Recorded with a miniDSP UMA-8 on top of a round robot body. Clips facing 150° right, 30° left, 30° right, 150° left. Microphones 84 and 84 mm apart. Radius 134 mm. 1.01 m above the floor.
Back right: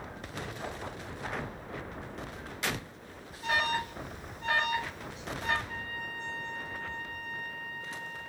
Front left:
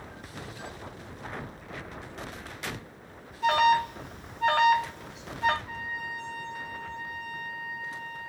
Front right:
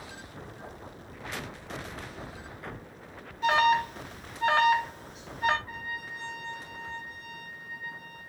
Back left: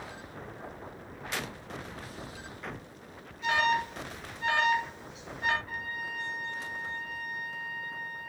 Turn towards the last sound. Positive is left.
turn(degrees=30)